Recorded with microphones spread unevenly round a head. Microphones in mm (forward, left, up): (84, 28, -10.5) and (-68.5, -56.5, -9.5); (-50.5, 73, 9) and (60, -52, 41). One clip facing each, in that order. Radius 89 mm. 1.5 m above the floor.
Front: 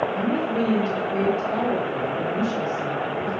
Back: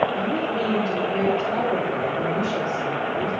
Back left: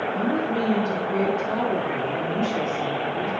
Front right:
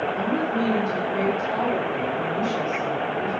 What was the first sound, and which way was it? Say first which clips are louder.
A woman speaking: front 1 dB, back left 2 dB; 85° left.